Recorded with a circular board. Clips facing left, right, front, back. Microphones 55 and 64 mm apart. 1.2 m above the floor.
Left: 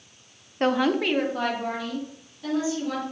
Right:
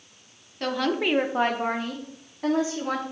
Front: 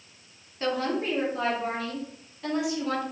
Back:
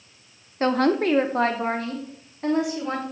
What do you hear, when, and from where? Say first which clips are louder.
0.6 s a woman speaking: left 3 dB, back 7 dB; 135° left, 0.7 m; by 3.0 s 120° right, 3 m